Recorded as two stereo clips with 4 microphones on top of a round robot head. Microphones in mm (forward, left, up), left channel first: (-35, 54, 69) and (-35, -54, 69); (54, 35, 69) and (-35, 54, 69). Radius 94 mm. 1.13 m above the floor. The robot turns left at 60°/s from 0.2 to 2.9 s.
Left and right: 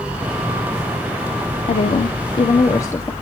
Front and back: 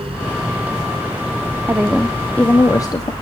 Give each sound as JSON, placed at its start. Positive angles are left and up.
{"t": 1.7, "sound": "a woman speaking", "azimuth_deg": 100, "distance_m": 0.8}